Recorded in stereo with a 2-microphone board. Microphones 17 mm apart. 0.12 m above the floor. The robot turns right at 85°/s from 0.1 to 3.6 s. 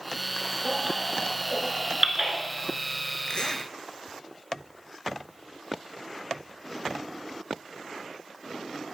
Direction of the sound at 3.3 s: 50° left (ahead or behind).